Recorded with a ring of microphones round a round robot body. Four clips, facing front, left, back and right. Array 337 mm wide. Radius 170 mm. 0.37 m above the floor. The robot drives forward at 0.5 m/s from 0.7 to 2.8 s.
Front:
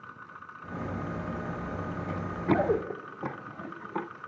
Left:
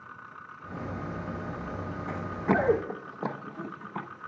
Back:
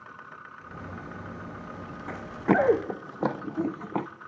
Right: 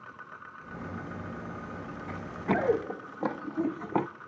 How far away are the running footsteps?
About 1.7 m.